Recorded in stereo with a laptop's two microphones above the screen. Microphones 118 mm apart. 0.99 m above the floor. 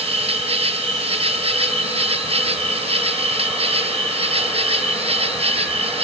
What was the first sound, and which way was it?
An insect, 55° right (ahead or behind).